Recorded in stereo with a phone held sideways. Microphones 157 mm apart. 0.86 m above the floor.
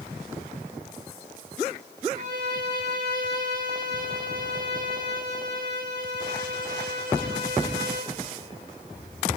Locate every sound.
2.1 s a violin: 65° right (ahead or behind), 3 m